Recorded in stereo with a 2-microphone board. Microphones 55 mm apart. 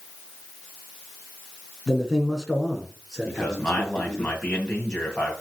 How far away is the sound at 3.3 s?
About 2.5 m.